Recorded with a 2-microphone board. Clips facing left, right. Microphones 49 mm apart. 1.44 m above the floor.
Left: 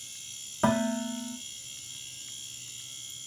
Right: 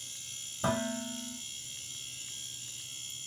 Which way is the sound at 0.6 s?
75° left (ahead or behind).